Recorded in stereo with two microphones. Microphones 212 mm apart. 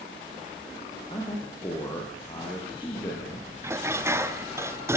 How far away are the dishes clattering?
About 0.9 m.